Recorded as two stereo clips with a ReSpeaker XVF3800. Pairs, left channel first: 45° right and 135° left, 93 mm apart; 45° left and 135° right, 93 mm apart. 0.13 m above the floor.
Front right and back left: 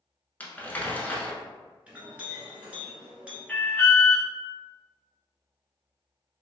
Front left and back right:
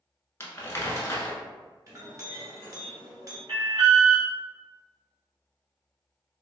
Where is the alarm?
130° right, 1.3 m.